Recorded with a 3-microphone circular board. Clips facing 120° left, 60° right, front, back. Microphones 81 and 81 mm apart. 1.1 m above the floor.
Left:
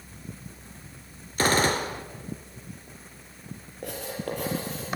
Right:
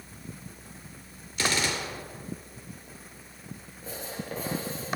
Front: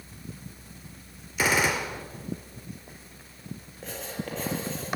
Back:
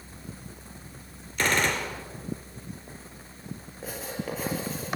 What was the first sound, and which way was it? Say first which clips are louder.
A gunshot: left 6 dB, front 1 dB; 80° left.